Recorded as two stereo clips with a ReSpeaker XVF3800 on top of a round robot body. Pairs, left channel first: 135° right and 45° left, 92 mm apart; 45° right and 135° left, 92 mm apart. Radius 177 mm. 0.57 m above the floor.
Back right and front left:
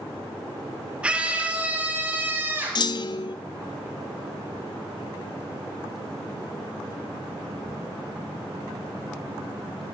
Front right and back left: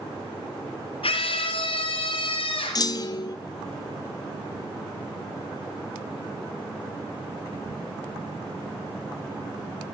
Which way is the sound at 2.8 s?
95° right.